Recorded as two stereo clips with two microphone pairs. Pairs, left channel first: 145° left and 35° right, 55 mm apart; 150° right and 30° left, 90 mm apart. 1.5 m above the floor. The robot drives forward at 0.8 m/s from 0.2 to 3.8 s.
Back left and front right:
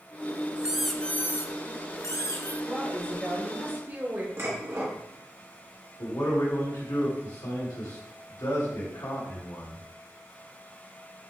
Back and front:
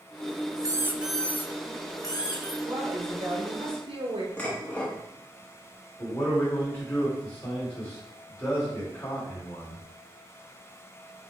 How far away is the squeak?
About 0.6 m.